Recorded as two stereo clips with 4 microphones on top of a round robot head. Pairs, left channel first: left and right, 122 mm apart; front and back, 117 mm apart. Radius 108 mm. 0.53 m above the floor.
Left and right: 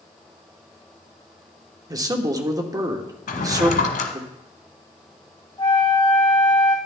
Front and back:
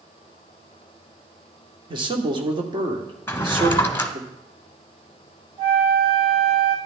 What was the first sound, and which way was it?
A man speaking, 145° right.